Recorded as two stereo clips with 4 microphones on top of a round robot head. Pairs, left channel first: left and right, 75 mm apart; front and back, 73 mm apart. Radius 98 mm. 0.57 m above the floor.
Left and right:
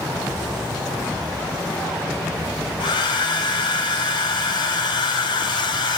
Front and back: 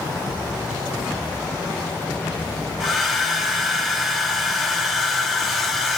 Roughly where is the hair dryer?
Left.